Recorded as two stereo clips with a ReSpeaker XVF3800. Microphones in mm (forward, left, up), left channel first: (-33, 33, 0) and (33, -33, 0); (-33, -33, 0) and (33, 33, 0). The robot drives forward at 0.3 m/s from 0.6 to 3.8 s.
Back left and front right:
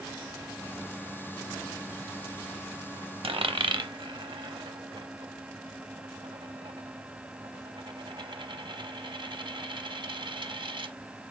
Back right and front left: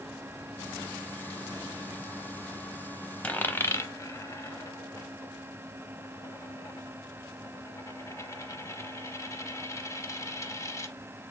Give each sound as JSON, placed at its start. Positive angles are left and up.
{"t": 3.2, "sound": "a dropped coin", "azimuth_deg": -60, "distance_m": 0.5}